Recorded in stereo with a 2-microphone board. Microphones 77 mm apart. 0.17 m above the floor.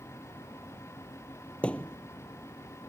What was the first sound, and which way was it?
A thud, 15° left (ahead or behind).